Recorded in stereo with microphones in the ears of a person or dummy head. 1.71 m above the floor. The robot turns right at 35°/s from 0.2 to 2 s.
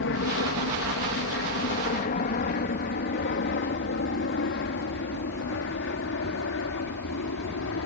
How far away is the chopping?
No chopping in this recording.